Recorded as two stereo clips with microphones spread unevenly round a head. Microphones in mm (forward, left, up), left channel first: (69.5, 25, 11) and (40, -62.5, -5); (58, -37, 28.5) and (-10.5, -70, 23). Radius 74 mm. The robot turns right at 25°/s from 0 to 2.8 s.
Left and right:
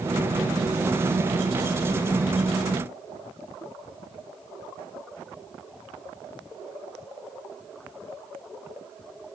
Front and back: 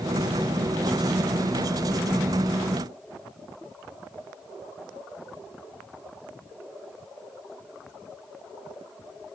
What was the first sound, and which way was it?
Only background noise.